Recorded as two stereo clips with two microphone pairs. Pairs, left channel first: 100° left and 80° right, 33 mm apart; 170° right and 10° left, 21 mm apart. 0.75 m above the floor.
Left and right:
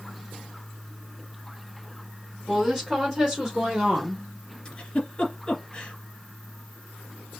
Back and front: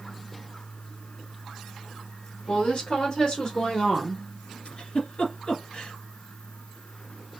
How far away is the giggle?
About 1.8 m.